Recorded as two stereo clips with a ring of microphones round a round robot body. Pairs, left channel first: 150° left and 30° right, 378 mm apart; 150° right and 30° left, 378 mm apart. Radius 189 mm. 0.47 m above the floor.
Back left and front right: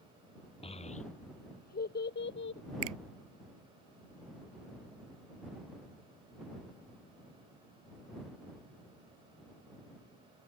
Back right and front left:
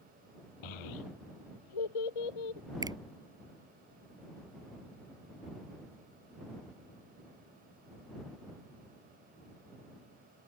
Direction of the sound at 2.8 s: 50° right.